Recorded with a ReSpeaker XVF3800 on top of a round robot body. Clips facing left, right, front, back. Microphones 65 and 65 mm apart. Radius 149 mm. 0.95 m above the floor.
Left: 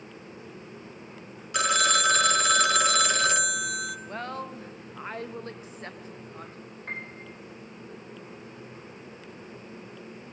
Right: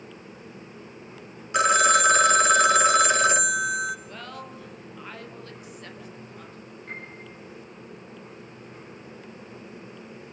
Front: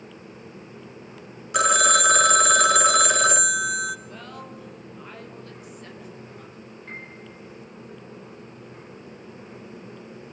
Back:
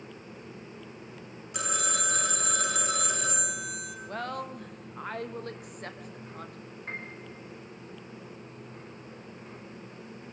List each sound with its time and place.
1.5 s a phone ringing: 25° right, 0.8 m
4.1 s a woman speaking: 145° left, 1.2 m
6.9 s a piano: 130° left, 4 m